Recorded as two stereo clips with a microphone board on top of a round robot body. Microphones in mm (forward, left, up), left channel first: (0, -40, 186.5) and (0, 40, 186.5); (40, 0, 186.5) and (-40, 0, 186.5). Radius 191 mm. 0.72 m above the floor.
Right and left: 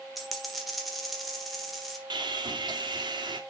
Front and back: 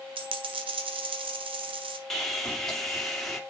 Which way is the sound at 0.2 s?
Straight behind.